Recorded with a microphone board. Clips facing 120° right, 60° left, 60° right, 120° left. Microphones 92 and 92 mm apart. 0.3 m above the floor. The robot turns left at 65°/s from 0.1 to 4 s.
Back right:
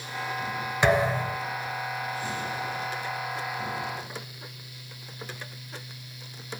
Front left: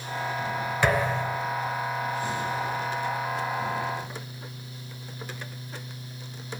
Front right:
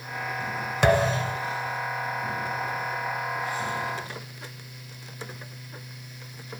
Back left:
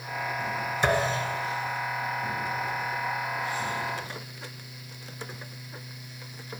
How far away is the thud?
About 1.1 m.